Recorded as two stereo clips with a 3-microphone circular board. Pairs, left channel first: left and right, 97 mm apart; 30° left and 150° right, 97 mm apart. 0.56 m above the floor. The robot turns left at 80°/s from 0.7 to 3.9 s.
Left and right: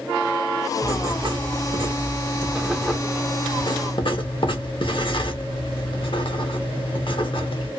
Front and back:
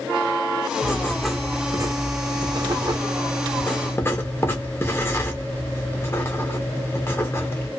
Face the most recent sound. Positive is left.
turn(degrees=90)